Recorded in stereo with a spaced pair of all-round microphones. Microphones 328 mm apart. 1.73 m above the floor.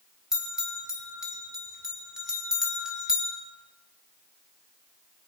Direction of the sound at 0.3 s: Centre (ahead or behind).